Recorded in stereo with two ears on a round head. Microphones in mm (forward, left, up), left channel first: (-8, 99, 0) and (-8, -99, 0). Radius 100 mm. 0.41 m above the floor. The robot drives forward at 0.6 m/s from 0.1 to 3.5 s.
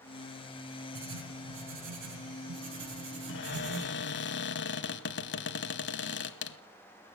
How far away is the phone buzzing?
No phone buzzing in this recording.